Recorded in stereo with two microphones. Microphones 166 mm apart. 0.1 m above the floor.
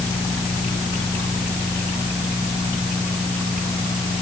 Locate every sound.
Only background noise.